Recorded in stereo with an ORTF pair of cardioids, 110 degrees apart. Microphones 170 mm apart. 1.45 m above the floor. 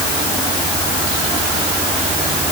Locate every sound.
Only background noise.